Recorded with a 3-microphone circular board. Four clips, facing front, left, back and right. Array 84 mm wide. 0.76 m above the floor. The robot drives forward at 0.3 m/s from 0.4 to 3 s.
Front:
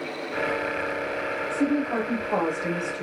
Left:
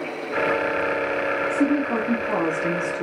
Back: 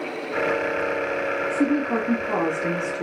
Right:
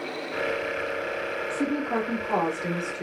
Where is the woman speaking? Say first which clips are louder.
Left 4 dB, back 2 dB; 140° left, 1.7 m; by 3.0 s 150° left, 2.0 m.